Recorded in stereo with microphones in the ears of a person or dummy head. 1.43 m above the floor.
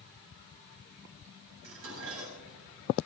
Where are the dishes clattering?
80° right, 5.5 m.